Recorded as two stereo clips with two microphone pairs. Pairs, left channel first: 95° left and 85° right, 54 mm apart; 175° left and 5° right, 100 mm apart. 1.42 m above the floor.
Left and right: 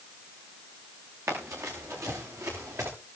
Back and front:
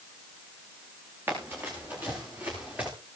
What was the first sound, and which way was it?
Running footsteps, 70° right.